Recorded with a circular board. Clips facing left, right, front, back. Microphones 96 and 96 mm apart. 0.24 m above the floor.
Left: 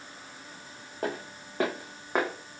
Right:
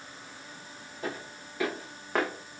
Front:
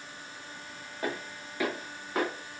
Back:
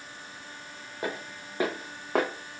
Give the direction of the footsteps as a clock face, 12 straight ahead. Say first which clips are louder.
Left 4 dB, even; 8 o'clock.